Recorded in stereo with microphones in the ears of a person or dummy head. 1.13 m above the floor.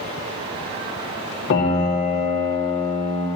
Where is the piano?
65° left (ahead or behind), 2 m.